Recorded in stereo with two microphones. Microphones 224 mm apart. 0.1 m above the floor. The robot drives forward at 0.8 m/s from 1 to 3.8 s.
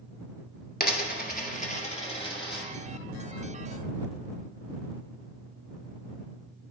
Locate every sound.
0.8 s a dropped coin: 45° left (ahead or behind), 0.8 m; by 2.7 s 20° left (ahead or behind), 1.6 m